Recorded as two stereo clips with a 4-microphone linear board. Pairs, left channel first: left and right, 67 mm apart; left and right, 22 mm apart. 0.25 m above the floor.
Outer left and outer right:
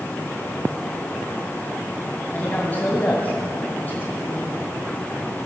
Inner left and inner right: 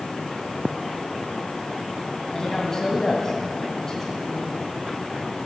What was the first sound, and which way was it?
A woman speaking, 25° left (ahead or behind).